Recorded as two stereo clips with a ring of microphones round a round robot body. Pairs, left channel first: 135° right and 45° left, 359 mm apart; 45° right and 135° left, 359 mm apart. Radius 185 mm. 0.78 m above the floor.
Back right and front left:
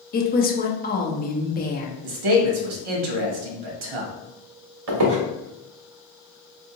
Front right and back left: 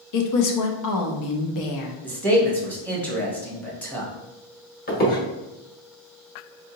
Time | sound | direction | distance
0.1 | a woman speaking | 70° right | 0.7 m
2.0 | a man speaking | 40° left | 1.0 m
4.9 | a squeak | 20° left | 0.9 m